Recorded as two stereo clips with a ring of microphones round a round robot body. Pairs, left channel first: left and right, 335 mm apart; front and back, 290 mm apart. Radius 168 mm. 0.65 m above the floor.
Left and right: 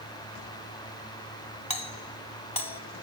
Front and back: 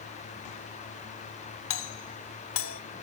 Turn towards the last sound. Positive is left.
turn(degrees=20)